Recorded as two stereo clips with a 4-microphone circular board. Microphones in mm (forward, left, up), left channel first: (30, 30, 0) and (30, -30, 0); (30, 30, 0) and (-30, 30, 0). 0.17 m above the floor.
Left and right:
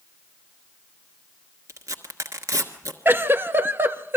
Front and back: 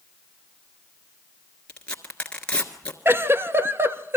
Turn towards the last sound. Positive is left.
turn(degrees=-135)